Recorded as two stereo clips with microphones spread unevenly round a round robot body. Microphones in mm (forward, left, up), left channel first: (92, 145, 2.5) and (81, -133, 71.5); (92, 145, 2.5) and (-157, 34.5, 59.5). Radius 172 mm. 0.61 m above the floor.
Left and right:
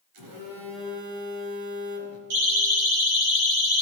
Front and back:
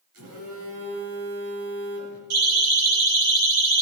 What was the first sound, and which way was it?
A phone buzzing, 105° right.